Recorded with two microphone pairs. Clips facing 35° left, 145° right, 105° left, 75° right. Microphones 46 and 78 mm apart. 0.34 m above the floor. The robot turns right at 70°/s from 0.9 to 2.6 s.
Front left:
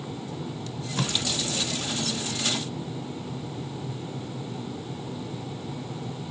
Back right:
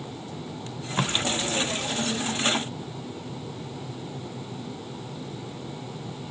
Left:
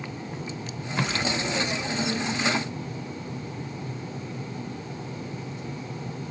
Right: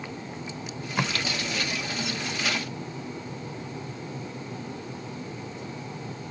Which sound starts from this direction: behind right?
Tape being pulled, at 0.7 s.